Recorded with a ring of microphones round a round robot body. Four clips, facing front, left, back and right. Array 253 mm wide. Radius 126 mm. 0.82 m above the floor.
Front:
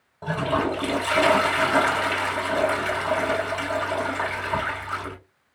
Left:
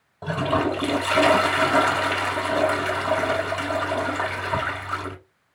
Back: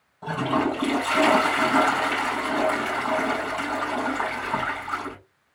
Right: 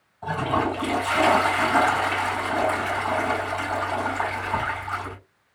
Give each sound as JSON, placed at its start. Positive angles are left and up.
{"t": 0.2, "sound": "a toilet flushing", "azimuth_deg": 65, "distance_m": 2.5}